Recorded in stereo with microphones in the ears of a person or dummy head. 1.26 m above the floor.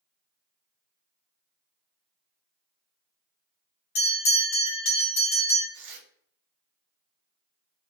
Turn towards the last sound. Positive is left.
turn(degrees=-60)  # may be behind; listen again after turning